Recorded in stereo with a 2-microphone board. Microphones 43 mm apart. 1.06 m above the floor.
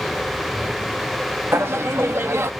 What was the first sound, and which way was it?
Laughter, 80° right.